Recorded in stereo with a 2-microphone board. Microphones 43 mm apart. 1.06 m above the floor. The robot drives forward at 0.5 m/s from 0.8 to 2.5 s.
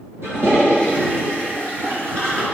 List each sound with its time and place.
0.2 s a toilet flushing: 80° right, 3.5 m; by 2.4 s 75° right (ahead or behind), 3.5 m